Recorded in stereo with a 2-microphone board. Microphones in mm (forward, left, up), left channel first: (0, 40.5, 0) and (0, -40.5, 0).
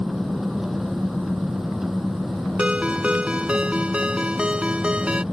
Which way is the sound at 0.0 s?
5° right (ahead or behind).